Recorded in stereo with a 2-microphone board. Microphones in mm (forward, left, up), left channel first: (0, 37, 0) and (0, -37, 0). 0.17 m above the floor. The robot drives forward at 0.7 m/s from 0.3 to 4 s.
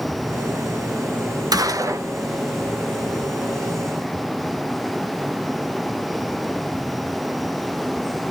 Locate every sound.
1.5 s a gunshot: 60° right (ahead or behind), 0.8 m; by 2.1 s 45° right (ahead or behind), 1.0 m